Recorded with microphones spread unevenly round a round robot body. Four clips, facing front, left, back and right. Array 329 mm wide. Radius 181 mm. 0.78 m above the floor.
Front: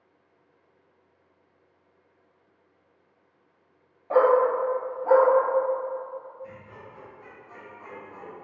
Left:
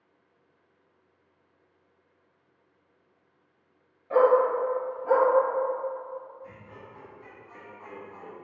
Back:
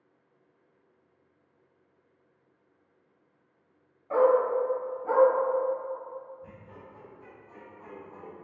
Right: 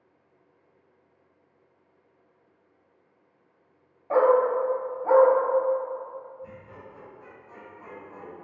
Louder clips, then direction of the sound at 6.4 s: Right 2 dB, front 5 dB; 140° right.